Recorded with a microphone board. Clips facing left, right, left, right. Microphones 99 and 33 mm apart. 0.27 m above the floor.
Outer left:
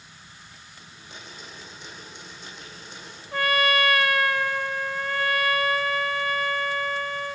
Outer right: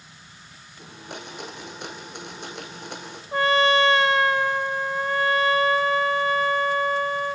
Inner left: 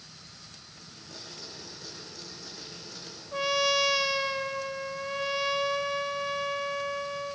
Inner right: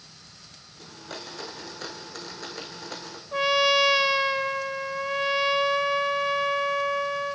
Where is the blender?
75° right (ahead or behind), 3 m.